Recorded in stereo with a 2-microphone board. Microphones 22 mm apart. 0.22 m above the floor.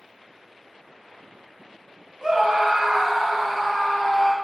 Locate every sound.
2.2 s a scream: 25° right (ahead or behind), 1.3 m; by 4.3 s 5° left (ahead or behind), 1.5 m